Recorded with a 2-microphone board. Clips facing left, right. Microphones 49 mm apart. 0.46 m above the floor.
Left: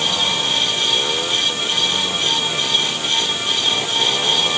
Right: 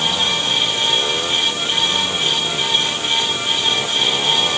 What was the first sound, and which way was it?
Only background noise.